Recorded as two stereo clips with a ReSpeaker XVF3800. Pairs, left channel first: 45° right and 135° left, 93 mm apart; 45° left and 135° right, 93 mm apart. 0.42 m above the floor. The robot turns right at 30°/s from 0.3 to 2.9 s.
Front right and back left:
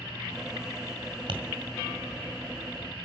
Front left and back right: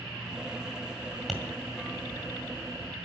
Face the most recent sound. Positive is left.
turn(degrees=180)